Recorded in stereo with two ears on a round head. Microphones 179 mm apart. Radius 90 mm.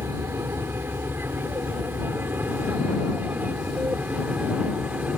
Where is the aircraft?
10° right (ahead or behind); by 5.2 s 5° right (ahead or behind).